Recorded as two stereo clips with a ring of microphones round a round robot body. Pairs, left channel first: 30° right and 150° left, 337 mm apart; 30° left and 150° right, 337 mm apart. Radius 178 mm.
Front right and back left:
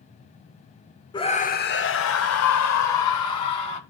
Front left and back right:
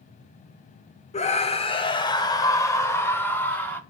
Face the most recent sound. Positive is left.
turn(degrees=-55)